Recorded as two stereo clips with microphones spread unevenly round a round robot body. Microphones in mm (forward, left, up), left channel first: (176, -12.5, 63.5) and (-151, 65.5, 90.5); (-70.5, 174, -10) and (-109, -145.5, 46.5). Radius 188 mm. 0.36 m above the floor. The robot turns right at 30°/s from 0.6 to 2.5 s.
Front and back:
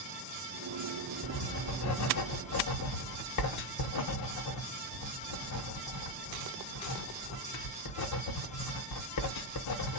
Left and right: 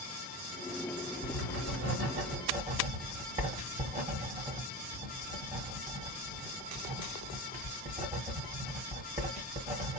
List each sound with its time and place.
1.2 s writing: 65° right, 1.1 m; by 10.0 s 25° right, 1.1 m